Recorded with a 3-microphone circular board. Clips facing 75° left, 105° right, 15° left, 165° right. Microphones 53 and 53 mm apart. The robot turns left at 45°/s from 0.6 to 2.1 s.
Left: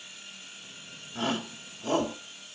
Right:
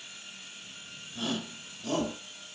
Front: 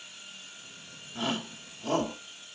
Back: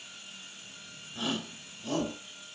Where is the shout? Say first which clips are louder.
Left 3 dB, front 2 dB; 55° left, 2.5 m; by 2.2 s 15° left, 2.5 m.